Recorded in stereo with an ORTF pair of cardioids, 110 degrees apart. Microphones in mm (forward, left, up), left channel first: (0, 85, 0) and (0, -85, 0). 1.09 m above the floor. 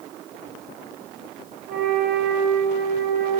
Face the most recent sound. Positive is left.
turn(degrees=-60)